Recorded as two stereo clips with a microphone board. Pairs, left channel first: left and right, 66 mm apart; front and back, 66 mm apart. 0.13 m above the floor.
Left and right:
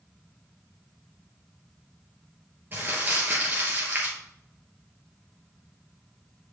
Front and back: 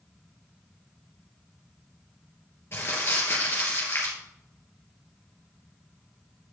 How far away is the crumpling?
About 2.5 m.